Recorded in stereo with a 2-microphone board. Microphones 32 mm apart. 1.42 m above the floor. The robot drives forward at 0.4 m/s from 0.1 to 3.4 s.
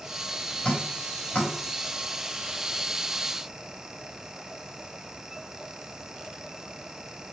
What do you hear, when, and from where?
0.6 s dripping: 35° left (ahead or behind), 4 m; by 1.5 s 40° left (ahead or behind), 3.5 m